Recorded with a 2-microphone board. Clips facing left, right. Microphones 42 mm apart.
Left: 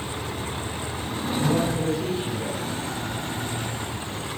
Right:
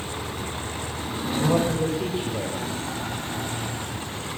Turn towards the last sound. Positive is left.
turn(degrees=-25)  # may be behind; listen again after turning